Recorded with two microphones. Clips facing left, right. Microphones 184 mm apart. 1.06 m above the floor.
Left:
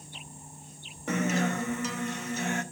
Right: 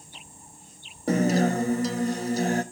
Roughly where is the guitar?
Right.